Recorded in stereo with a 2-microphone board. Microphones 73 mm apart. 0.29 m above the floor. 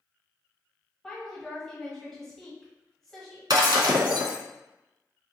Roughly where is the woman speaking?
Centre.